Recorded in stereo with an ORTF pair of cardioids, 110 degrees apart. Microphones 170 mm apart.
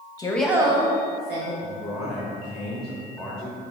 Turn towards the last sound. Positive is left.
turn(degrees=0)